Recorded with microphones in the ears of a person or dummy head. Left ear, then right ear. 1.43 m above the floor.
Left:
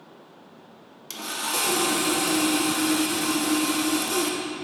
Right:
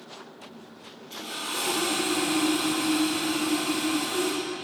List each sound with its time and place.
1.1 s sawing: 75° left (ahead or behind), 0.7 m